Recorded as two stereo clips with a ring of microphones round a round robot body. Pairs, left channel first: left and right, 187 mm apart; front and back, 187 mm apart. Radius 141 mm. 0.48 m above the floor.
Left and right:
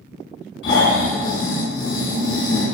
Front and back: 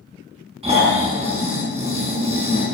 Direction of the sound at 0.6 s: 120° left.